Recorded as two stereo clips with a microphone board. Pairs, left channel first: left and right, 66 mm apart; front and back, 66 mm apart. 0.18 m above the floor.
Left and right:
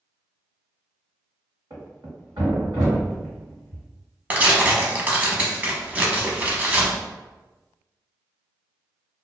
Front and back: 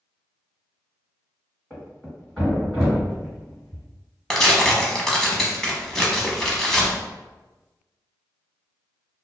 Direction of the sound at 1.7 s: 85° right.